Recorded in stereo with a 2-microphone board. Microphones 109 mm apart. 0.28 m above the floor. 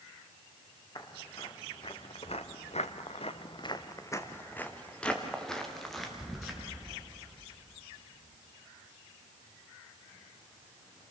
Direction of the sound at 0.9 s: 40° left (ahead or behind).